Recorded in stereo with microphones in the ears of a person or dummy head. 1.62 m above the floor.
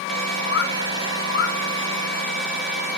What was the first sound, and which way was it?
A bird, 65° left (ahead or behind).